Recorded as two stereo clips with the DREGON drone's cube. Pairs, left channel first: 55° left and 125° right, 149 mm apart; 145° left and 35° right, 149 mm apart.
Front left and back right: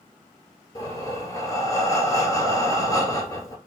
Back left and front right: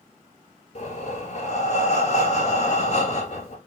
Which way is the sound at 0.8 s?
120° left.